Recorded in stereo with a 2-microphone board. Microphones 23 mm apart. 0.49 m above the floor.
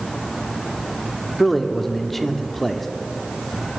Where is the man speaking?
5° left (ahead or behind), 0.7 m.